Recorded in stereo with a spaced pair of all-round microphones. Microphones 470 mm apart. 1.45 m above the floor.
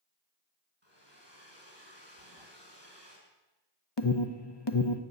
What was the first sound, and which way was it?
A hair dryer, 60° right (ahead or behind).